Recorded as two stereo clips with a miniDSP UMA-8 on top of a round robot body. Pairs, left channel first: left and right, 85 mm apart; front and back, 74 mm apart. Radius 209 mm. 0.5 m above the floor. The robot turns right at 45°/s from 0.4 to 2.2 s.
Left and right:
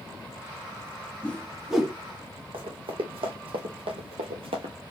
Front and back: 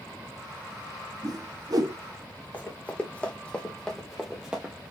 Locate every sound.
1.2 s a whoosh: 160° left, 1.9 m; by 1.9 s 165° right, 1.9 m
2.5 s running footsteps: 70° right, 1.8 m; by 4.7 s 115° right, 0.7 m